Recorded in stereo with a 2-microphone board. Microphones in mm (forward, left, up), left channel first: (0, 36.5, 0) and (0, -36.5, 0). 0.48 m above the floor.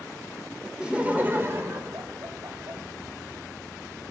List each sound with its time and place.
0.8 s laughter: 10° right (ahead or behind), 1.6 m; by 2.8 s 60° right (ahead or behind), 3 m